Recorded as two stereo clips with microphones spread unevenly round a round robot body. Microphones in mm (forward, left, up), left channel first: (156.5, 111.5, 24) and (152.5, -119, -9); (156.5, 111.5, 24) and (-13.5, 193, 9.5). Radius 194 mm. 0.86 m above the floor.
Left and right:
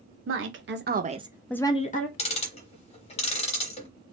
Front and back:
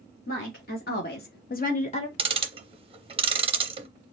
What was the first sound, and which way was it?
A woman speaking, 85° right.